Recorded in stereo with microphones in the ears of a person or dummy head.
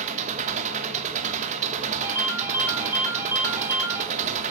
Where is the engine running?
40° right (ahead or behind), 0.8 m.